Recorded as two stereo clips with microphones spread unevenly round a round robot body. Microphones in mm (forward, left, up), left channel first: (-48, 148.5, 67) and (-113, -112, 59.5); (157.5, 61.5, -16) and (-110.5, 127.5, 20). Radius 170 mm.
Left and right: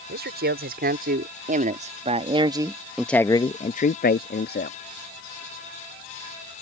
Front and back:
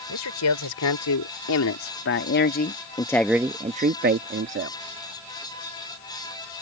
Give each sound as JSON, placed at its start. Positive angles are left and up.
{"t": 0.1, "sound": "a man speaking", "azimuth_deg": -45}